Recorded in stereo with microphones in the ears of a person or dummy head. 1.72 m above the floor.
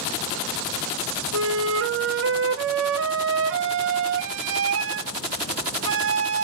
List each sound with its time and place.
1.3 s a flute: 60° right (ahead or behind), 0.5 m